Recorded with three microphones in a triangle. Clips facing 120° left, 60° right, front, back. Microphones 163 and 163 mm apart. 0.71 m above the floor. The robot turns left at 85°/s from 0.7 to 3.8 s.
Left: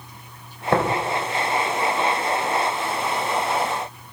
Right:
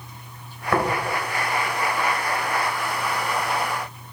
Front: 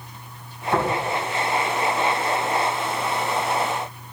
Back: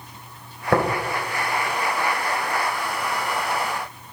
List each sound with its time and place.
0.7 s tapping: straight behind, 2.5 m; by 0.8 s 165° left, 2.5 m